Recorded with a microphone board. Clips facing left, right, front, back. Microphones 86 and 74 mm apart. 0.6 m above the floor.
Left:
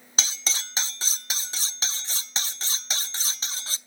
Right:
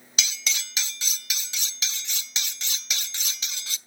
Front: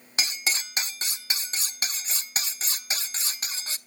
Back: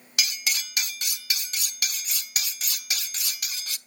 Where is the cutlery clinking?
45° left, 0.5 m.